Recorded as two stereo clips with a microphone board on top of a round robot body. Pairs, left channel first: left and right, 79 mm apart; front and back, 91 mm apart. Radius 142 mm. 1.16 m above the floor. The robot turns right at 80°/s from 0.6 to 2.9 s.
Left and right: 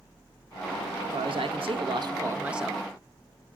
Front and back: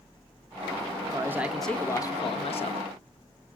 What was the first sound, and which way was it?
A man speaking, 135° right.